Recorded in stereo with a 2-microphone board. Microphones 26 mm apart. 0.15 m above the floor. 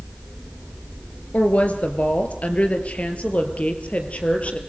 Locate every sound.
1.3 s a woman speaking: 60° left (ahead or behind), 3 m; by 4.6 s 55° left (ahead or behind), 4 m